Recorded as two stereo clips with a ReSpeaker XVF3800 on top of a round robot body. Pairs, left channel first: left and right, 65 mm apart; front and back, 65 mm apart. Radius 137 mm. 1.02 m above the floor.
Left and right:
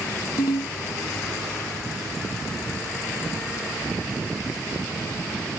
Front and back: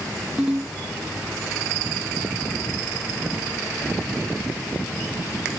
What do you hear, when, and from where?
0.4 s a ringtone: 105° left